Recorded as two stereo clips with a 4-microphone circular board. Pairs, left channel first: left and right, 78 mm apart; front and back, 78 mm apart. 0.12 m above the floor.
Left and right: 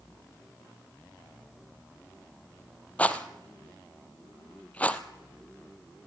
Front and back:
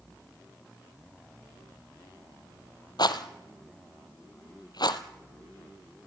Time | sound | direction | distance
3.0 | a rattle | 20° left | 1.2 m